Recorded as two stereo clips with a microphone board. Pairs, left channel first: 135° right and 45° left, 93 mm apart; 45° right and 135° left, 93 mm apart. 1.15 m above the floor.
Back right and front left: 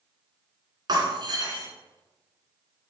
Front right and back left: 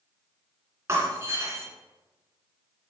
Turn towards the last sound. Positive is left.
turn(degrees=75)